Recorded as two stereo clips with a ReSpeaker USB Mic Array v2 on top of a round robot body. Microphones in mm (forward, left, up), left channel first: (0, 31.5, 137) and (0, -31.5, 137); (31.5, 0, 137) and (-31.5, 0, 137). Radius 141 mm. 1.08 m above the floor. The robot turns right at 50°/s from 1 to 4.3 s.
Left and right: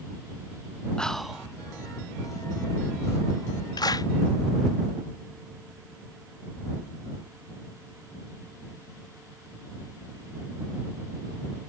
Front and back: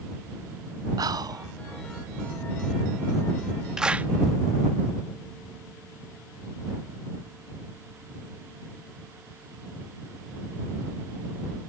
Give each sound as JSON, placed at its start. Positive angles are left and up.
{"t": 1.0, "sound": "whispering", "azimuth_deg": 170}
{"t": 3.8, "sound": "a clap", "azimuth_deg": 100}